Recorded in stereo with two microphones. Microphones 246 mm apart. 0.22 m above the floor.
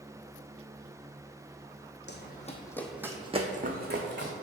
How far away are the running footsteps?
About 0.7 m.